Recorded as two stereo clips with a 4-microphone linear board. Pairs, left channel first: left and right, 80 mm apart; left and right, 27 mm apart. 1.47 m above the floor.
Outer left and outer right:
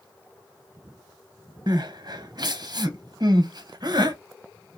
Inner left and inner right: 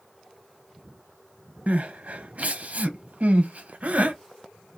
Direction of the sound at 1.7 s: 60° right (ahead or behind).